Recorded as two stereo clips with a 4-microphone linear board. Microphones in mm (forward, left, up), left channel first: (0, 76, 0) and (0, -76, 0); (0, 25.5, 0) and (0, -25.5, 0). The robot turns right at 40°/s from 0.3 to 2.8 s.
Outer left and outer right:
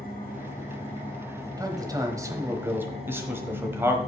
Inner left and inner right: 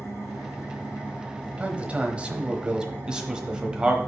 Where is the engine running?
120° left, 2.5 m; by 4.1 s 140° right, 2.5 m.